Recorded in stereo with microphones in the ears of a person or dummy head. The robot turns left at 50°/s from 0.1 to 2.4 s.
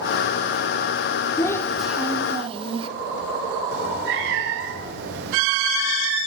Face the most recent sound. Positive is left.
turn(degrees=-60)  # may be behind; listen again after turning